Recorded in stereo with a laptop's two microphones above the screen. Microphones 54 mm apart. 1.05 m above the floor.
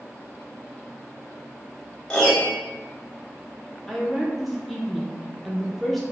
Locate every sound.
2.1 s a piano: 15° left (ahead or behind), 0.7 m
3.9 s a woman speaking: 5° left (ahead or behind), 0.6 m